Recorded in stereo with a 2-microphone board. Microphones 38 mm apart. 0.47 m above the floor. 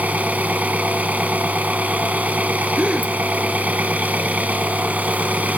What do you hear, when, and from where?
0.0 s an engine running: 50° right (ahead or behind), 1.6 m
2.8 s a gasp: 35° right (ahead or behind), 2 m